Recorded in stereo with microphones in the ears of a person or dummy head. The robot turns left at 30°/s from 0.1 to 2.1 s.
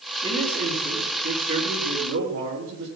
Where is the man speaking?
25° right, 5 m; by 2.9 s 80° right, 5 m.